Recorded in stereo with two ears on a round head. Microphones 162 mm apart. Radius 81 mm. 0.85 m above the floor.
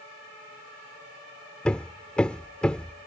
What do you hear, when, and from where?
1.6 s hammering: 5° left (ahead or behind)